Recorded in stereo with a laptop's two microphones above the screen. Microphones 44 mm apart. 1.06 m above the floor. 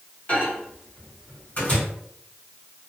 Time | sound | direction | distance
0.3 | a microwave | 30° left (ahead or behind) | 1.4 m